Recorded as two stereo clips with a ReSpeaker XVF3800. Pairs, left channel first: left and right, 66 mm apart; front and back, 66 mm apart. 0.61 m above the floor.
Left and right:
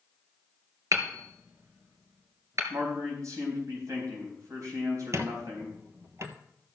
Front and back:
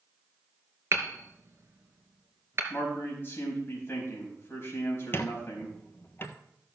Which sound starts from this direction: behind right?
Hammering, at 0.9 s.